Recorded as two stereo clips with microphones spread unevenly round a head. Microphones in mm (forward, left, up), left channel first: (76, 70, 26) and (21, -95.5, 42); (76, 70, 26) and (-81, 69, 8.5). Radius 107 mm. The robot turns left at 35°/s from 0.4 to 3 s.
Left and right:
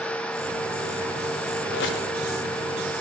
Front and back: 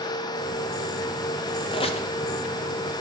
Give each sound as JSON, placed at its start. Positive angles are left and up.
{"t": 1.7, "sound": "a squeak", "azimuth_deg": 60, "distance_m": 0.7}